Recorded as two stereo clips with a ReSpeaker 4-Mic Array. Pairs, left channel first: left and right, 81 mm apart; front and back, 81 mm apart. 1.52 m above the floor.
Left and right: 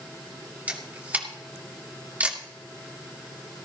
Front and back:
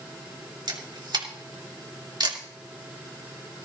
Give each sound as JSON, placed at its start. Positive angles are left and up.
{"t": 0.7, "sound": "a camera shutter", "azimuth_deg": -160, "distance_m": 2.5}